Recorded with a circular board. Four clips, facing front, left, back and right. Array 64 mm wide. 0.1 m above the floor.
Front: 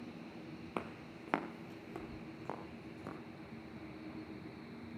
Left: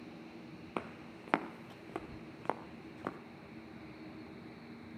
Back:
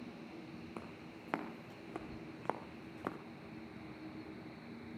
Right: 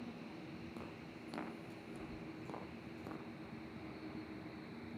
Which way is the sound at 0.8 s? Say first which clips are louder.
Left 7 dB, front 5 dB; 60° left.